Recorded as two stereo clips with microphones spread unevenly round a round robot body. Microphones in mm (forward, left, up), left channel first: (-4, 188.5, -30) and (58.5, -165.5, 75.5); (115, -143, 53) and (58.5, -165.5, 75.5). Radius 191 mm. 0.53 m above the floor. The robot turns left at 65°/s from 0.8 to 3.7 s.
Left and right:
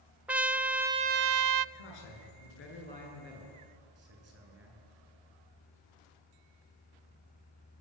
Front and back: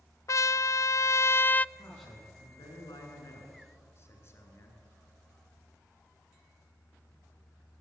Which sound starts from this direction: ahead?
A trumpet, at 0.3 s.